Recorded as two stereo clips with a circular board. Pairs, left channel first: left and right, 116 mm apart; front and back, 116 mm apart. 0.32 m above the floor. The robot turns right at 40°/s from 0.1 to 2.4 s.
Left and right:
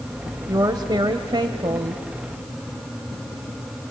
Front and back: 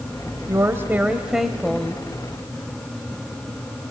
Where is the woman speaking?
130° right, 1.2 m; by 2.0 s 70° right, 1.2 m.